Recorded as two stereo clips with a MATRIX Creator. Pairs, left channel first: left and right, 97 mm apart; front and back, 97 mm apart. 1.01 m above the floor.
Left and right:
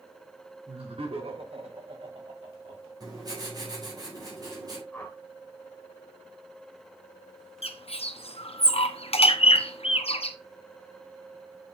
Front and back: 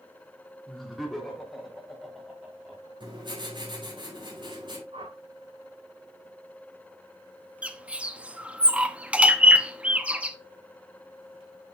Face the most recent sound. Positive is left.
turn(degrees=105)